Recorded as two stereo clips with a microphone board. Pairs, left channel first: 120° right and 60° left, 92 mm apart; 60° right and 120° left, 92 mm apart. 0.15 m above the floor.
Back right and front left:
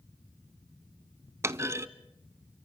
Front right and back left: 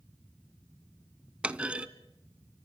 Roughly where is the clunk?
Ahead left.